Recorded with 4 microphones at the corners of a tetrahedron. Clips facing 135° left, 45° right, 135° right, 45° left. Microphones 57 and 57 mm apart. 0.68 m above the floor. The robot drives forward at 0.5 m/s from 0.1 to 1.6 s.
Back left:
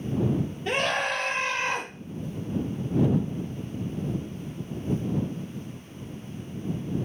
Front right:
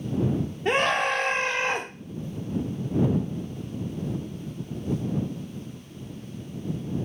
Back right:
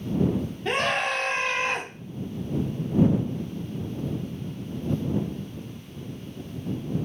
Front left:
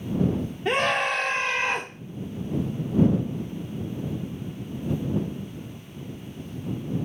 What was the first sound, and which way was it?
A scream, 35° right.